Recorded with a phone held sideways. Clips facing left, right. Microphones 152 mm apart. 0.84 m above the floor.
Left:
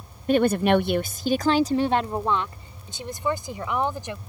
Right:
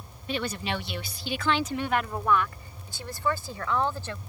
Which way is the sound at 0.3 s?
45° left (ahead or behind).